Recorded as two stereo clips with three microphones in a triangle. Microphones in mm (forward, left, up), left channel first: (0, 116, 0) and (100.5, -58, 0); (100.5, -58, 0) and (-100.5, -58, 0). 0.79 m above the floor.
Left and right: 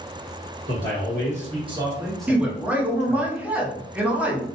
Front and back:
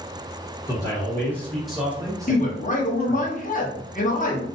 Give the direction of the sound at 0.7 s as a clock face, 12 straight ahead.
2 o'clock.